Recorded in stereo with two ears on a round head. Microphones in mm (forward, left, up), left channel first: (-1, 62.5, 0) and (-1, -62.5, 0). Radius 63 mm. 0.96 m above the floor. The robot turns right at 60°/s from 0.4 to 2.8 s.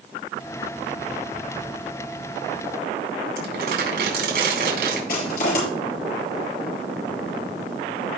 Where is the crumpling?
85° right, 4.5 m.